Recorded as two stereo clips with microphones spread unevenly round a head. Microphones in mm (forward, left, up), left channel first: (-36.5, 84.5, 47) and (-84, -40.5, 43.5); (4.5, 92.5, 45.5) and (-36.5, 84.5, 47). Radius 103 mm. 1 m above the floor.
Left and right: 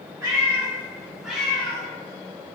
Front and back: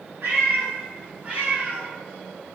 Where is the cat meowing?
175° right, 1.5 m; by 1.9 s 135° left, 1.2 m.